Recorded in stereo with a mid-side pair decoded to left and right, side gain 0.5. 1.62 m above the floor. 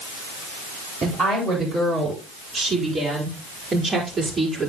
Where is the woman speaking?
45° right, 8.5 m; by 4.7 s 35° right, 5 m.